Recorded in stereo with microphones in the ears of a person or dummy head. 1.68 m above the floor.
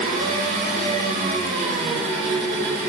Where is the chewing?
No chewing in this recording.